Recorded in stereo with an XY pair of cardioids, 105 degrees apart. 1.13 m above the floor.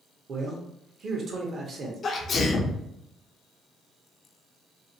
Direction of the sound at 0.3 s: 50° right.